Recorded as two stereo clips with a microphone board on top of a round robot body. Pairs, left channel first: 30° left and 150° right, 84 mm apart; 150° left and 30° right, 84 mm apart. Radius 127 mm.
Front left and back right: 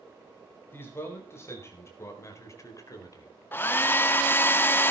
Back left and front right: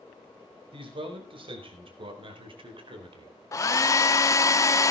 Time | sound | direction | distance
0.7 | a man speaking | 35° right | 5 m
3.5 | a hair dryer | 95° left | 0.8 m